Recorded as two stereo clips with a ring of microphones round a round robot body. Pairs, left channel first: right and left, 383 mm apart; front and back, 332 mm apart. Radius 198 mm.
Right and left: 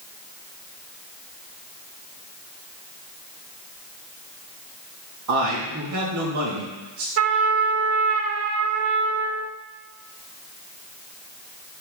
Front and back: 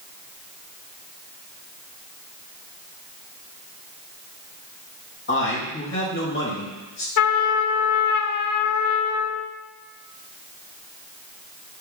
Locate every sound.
5.3 s a man speaking: 50° left, 3 m
7.2 s a trumpet: 35° left, 0.7 m